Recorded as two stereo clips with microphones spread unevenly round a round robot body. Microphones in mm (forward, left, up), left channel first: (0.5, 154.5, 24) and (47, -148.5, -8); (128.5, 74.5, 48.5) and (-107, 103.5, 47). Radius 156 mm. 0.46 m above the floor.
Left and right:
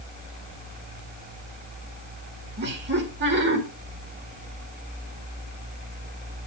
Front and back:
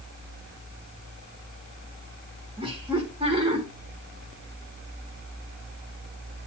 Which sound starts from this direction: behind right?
Laughter, at 2.6 s.